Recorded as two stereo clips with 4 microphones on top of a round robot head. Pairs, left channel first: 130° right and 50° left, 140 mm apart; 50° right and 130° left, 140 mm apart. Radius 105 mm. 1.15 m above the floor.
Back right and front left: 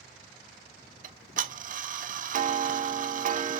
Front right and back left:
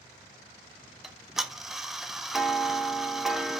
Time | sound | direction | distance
1.0 | ticking | 40° left | 0.5 m